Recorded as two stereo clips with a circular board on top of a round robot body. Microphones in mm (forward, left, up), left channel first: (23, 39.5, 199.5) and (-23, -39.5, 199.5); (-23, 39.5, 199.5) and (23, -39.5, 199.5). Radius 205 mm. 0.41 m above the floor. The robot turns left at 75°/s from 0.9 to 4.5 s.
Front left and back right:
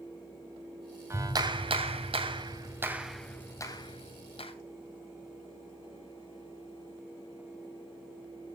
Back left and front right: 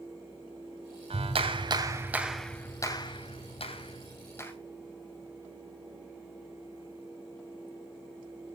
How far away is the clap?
About 2.5 m.